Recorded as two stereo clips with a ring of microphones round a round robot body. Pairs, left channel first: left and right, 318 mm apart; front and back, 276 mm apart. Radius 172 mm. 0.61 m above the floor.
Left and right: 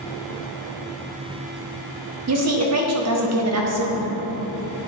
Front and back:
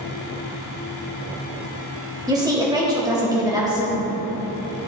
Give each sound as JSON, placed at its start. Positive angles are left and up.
{"t": 2.3, "sound": "a woman speaking", "azimuth_deg": -105, "distance_m": 1.3}